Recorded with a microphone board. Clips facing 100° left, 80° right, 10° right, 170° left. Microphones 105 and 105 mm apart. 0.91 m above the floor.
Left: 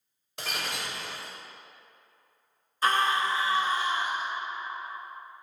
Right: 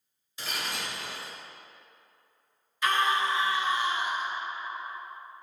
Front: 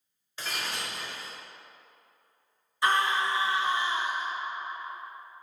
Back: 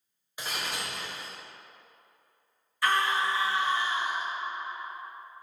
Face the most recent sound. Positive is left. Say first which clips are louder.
# left 1 dB, front 1 dB
turn(degrees=55)